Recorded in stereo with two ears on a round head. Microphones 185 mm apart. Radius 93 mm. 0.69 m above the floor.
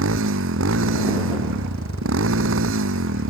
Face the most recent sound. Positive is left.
turn(degrees=-75)  # may be behind; listen again after turning